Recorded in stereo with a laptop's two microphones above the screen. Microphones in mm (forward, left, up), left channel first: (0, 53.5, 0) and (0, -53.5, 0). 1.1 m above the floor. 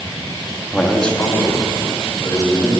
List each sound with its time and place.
0.7 s a man speaking: 5° right (ahead or behind), 1.5 m; by 2.8 s 35° left (ahead or behind), 4.5 m